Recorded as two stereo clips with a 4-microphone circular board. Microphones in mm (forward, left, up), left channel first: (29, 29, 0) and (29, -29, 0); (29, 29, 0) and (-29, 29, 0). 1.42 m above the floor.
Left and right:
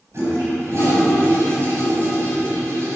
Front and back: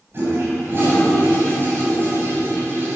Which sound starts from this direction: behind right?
A toilet flushing, at 0.1 s.